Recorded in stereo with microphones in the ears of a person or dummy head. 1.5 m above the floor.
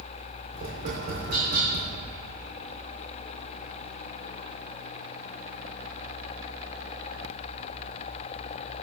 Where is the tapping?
45° right (ahead or behind), 4 m.